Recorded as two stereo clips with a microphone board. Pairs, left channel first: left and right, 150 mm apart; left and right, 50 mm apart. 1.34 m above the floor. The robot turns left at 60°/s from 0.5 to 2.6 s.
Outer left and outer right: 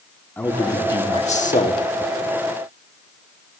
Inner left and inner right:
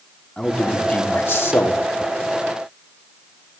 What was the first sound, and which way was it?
A man speaking, 170° left.